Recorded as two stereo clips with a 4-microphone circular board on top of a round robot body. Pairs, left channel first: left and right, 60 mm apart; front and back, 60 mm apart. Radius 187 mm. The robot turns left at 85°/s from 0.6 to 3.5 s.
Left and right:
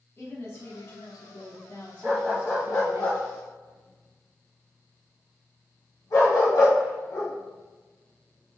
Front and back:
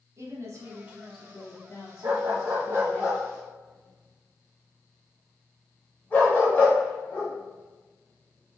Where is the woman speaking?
135° left, 2.5 m; by 3.0 s 70° right, 2.5 m.